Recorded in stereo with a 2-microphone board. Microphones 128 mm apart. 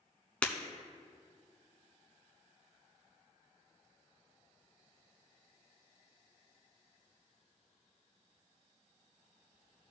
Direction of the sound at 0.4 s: 10° left (ahead or behind).